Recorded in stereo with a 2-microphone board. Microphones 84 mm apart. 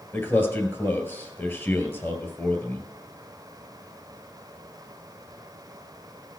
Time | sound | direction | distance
0.1 | a man speaking | 25° left (ahead or behind) | 2.5 m